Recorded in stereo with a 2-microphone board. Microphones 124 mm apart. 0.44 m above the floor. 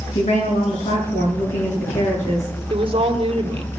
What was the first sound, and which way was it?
A woman speaking, 80° left.